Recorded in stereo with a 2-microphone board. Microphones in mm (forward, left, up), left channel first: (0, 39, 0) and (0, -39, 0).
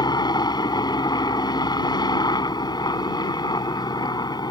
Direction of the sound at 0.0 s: 60° left (ahead or behind).